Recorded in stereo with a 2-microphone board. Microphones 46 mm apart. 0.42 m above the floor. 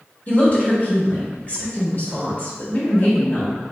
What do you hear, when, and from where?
0.3 s a woman speaking: 35° left (ahead or behind), 1.1 m